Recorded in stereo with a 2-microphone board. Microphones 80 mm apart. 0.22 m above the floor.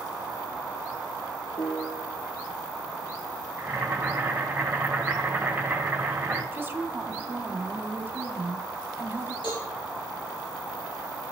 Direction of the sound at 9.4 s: 75° left (ahead or behind).